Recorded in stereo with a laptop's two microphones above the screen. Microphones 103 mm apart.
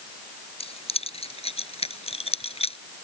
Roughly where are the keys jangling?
Left.